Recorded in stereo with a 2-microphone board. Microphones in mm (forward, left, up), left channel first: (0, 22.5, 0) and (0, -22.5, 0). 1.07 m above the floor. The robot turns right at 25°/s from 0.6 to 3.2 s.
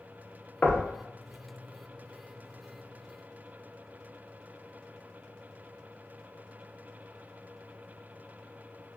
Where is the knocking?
35° left (ahead or behind), 0.6 m; by 0.9 s 40° left (ahead or behind), 0.6 m.